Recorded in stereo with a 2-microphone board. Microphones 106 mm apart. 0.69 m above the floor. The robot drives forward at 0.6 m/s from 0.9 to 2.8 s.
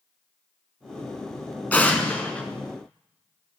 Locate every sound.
1.7 s an explosion: 15° left (ahead or behind), 1.7 m; by 2.4 s 10° left (ahead or behind), 2 m